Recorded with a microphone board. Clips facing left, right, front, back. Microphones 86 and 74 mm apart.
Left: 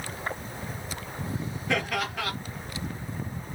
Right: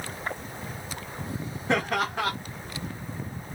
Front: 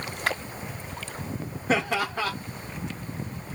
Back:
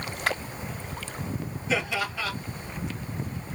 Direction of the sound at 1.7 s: 35° right.